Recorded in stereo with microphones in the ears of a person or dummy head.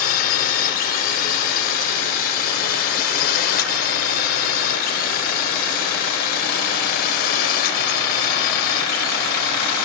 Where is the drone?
50° left (ahead or behind).